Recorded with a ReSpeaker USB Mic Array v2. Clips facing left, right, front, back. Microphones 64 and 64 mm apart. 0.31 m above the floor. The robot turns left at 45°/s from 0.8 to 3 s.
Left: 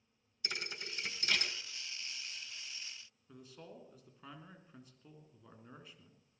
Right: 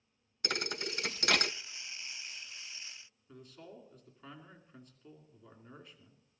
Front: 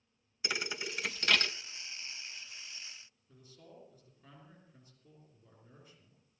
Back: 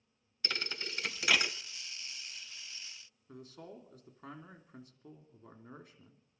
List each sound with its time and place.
0.4 s a thud: 75° right, 0.5 m; by 1.5 s 105° right, 0.5 m
3.3 s a man speaking: straight behind, 3 m